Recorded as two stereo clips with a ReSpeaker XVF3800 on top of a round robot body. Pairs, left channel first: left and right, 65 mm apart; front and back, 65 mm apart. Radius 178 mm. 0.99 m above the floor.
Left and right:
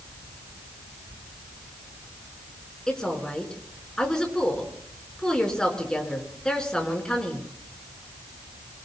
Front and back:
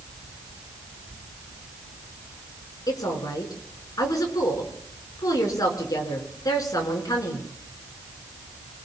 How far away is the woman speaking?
About 4.5 m.